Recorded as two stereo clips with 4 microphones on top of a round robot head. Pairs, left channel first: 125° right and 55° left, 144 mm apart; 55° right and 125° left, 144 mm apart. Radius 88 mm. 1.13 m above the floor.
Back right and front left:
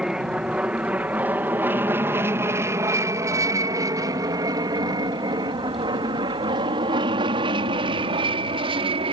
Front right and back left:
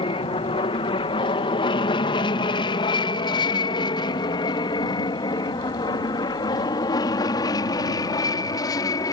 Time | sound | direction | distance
0.0 | an aircraft | 25° right | ?